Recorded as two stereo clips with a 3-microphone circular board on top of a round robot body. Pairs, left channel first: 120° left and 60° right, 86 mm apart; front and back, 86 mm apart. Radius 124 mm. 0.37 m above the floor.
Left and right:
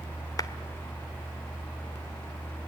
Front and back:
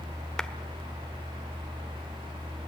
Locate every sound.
0.4 s a clap: 85° left, 1.8 m